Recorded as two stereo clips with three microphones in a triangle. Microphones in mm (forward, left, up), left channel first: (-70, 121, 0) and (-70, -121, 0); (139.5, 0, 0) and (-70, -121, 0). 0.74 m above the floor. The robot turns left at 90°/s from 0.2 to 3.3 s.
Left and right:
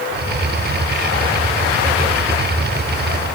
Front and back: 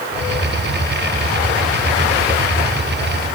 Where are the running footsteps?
I don't hear running footsteps.